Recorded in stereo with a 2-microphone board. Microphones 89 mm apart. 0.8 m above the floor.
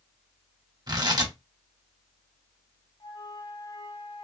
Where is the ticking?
I don't hear ticking.